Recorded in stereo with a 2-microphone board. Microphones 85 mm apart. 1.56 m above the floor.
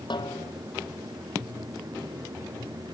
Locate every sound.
0.1 s a snare drum: 65° left (ahead or behind)